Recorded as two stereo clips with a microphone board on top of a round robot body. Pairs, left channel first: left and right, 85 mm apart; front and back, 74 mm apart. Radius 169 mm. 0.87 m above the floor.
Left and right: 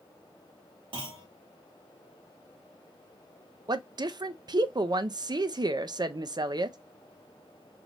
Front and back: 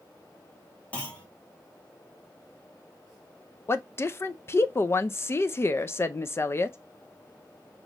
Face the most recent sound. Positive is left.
turn(degrees=-55)